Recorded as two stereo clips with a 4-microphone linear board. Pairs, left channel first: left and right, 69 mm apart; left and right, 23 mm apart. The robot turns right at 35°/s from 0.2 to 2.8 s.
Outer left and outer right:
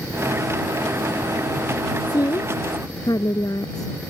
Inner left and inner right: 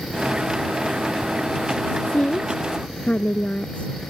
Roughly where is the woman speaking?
Left.